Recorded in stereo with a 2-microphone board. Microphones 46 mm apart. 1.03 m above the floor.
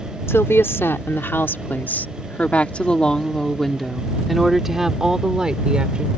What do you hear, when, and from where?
0.3 s a woman speaking: 70° left (ahead or behind); by 6.1 s 20° right (ahead or behind)